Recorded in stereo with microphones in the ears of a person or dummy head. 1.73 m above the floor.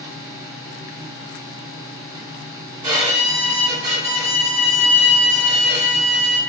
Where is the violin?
20° right (ahead or behind), 1.6 m.